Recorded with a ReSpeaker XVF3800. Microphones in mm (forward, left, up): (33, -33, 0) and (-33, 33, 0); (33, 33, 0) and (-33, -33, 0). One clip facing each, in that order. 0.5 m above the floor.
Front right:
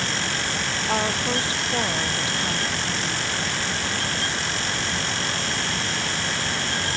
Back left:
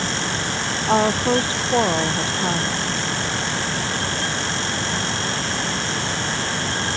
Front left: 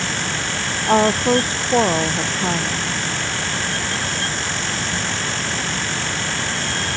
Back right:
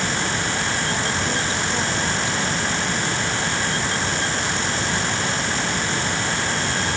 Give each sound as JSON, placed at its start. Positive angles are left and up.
{"t": 0.9, "sound": "a woman speaking", "azimuth_deg": 75}